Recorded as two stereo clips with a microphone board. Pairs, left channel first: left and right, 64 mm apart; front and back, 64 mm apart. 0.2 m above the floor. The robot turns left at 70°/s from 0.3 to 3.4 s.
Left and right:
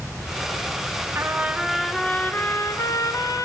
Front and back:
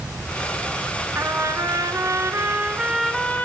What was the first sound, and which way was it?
A trumpet, 135° right.